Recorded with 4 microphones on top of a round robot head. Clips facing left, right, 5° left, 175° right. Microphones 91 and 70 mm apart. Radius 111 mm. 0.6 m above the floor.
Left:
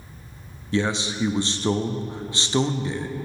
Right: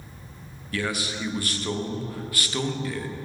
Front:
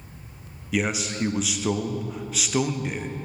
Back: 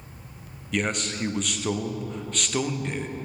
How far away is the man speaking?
About 0.7 m.